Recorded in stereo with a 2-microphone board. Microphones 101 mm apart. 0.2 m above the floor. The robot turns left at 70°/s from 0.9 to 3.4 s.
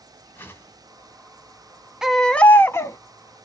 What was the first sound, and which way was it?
A whoosh, 25° left (ahead or behind).